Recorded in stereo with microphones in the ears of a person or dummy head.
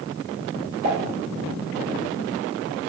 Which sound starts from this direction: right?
Dishes clattering, at 0.8 s.